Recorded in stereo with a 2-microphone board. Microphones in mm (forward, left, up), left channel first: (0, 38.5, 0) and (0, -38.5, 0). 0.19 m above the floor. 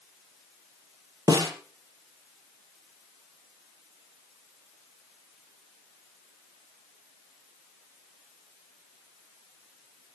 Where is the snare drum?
55° right (ahead or behind), 4 m.